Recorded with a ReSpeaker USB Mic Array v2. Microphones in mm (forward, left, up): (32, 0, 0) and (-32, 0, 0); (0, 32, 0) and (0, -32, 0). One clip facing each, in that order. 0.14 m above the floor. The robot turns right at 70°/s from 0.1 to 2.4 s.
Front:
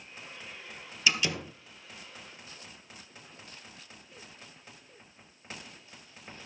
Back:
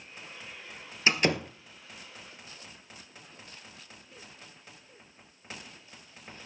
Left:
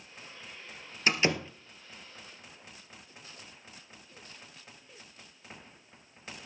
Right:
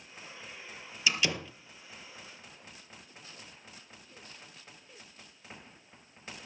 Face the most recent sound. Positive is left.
turn(degrees=-135)